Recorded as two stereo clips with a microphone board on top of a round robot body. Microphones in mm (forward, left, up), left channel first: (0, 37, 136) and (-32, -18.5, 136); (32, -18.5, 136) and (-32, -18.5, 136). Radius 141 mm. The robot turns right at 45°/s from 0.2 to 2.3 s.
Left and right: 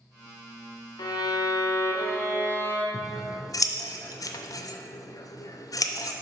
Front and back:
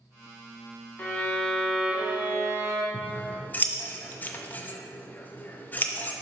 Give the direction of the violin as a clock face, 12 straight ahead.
10 o'clock.